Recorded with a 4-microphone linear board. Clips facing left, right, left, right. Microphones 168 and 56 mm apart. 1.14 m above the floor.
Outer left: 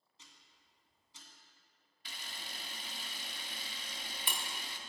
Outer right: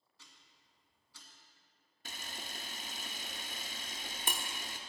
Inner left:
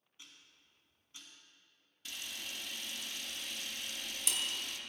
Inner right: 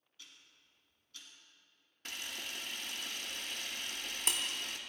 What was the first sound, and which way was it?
Ticking, 20° left (ahead or behind).